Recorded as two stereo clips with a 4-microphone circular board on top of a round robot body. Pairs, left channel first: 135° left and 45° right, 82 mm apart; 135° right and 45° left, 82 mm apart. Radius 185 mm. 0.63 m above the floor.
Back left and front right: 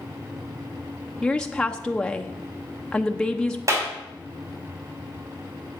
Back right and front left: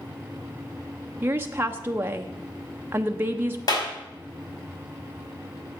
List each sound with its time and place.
1.2 s a woman speaking: 65° left, 1.0 m
3.7 s a clap: 95° right, 4 m